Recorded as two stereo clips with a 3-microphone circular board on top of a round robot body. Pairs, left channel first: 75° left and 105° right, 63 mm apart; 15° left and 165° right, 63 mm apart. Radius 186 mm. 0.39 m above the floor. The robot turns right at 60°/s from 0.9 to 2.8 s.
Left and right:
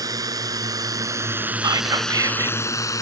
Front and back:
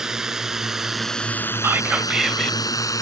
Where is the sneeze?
No sneeze in this recording.